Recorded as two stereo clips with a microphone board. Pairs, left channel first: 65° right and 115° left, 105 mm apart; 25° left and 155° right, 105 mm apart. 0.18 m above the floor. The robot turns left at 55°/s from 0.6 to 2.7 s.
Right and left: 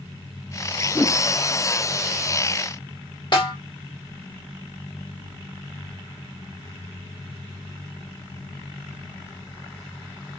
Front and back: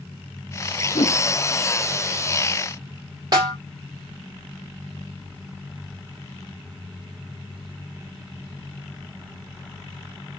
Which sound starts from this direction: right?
A snare drum, at 3.3 s.